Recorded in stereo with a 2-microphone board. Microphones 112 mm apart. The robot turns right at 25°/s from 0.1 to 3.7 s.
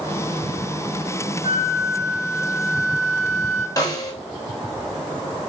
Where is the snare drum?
35° left (ahead or behind), 3.5 m.